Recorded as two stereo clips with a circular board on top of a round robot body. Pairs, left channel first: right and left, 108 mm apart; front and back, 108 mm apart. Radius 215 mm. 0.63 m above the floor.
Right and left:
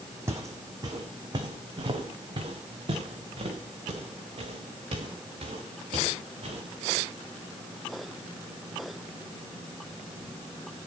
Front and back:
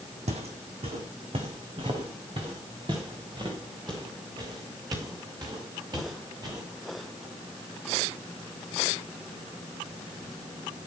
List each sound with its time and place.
0.3 s footsteps: 155° left, 1.7 m; by 6.6 s 125° left, 7 m